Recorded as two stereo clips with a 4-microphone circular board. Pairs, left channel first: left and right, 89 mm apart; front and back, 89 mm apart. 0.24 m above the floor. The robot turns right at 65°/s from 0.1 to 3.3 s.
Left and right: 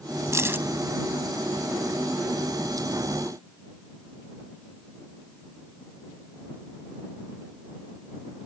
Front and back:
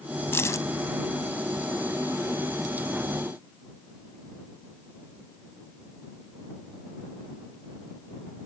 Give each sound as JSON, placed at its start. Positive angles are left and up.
{"t": 0.3, "sound": "keys jangling", "azimuth_deg": -50}